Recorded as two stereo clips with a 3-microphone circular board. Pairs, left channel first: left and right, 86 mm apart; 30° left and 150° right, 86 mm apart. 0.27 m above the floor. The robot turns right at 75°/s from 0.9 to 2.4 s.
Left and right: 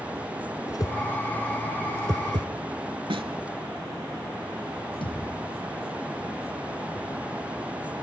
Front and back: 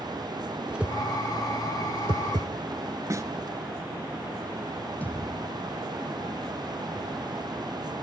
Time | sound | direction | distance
0.7 | a whoosh | 135° left | 1.0 m
3.1 | a snare drum | 95° right | 1.1 m
5.0 | a thud | 100° left | 3.5 m